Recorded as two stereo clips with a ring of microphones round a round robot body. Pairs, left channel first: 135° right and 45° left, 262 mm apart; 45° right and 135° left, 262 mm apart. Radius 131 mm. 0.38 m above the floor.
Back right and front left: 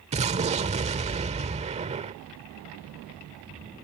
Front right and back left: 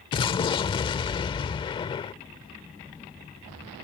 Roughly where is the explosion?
Ahead.